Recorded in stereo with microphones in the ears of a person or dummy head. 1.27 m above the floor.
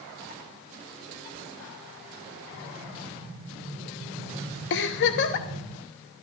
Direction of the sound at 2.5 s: 35° right (ahead or behind).